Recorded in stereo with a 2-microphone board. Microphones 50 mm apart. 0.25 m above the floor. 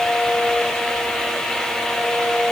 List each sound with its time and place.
Only background noise.